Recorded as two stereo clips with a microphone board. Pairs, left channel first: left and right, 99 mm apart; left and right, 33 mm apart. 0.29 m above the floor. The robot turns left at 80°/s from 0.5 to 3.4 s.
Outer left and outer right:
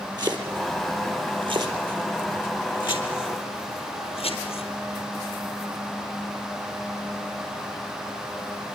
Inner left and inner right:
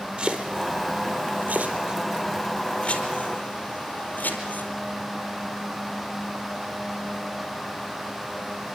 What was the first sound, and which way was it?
Chopping, 45° right (ahead or behind).